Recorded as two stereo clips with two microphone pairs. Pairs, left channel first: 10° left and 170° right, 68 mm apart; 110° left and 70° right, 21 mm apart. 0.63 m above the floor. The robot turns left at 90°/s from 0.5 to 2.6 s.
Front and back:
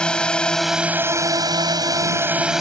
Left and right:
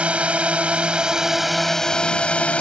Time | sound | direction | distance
0.0 | a drone | 70° right | ?